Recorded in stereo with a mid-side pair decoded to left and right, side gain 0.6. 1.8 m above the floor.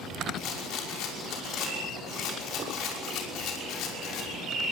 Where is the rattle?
65° left, 5.5 m.